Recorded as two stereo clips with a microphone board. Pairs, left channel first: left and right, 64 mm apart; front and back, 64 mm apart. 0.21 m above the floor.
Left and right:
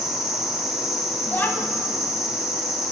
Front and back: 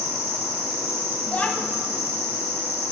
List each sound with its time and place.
0.0 s an insect: 170° right, 1.7 m
1.3 s a child speaking: 55° left, 0.6 m